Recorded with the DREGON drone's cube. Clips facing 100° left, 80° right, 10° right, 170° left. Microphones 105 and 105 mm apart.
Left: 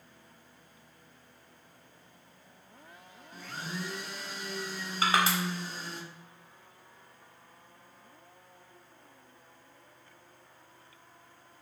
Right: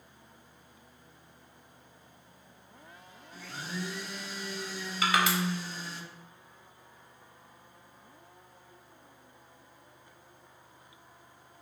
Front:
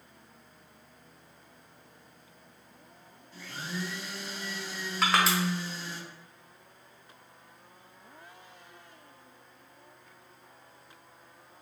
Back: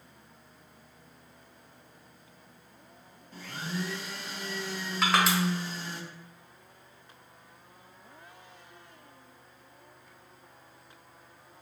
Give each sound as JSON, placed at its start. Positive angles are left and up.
{"t": 3.3, "sound": "a blender", "azimuth_deg": 135, "distance_m": 0.6}
{"t": 5.0, "sound": "crushing", "azimuth_deg": 80, "distance_m": 1.0}